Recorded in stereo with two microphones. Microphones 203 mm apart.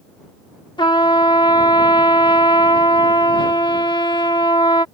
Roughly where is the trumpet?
Left.